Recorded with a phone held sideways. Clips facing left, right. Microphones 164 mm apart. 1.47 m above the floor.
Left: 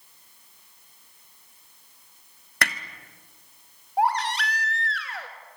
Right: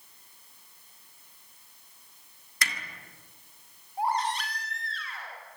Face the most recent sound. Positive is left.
turn(degrees=75)  # may be behind; listen again after turning